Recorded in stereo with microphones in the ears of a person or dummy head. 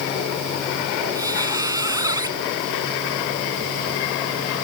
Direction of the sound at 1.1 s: 15° right (ahead or behind).